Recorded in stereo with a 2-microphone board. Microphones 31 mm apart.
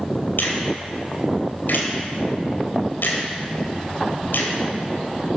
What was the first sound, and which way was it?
A finger snap, 80° left.